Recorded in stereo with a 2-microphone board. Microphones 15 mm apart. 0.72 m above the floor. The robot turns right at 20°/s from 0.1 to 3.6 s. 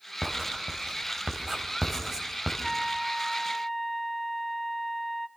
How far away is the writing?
About 3.5 m.